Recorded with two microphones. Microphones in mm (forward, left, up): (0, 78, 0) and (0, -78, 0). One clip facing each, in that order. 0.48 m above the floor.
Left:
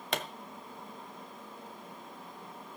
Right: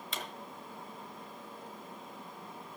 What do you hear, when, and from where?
0.1 s a pop: 70° left (ahead or behind), 1.4 m